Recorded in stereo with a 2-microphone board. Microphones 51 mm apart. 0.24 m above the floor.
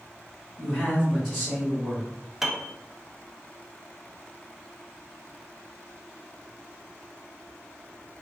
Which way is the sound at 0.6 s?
Centre (ahead or behind).